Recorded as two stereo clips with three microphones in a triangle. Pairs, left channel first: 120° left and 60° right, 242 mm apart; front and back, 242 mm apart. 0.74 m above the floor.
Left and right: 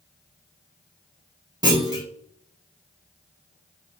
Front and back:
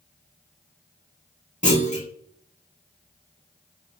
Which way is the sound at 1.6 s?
5° right.